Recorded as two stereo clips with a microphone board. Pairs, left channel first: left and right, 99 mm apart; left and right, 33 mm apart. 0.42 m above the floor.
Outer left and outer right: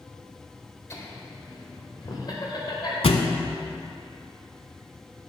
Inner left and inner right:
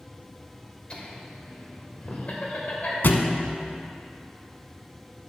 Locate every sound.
0.9 s laughter: 30° left (ahead or behind), 1.6 m; by 2.9 s 50° left (ahead or behind), 1.7 m
3.0 s a thud: 80° left, 0.7 m